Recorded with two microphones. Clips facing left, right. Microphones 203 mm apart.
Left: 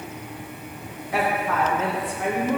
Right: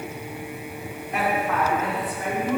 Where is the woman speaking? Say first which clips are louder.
Left 1 dB; 85° left, 2.5 m; by 2.6 s 75° left (ahead or behind), 1.6 m.